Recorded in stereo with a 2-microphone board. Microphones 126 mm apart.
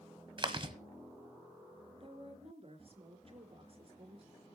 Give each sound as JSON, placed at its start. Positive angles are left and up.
{"t": 0.4, "sound": "chewing", "side_deg": -45, "distance_m": 1.2}
{"t": 2.0, "sound": "a woman speaking", "side_deg": -50, "distance_m": 3.5}